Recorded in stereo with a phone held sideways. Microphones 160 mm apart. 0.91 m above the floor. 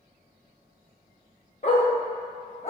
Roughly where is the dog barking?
Left.